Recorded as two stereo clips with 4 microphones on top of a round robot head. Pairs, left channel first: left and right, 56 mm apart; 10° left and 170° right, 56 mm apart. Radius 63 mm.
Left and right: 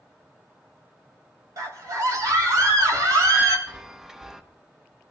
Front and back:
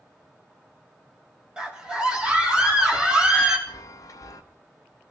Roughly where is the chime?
Ahead.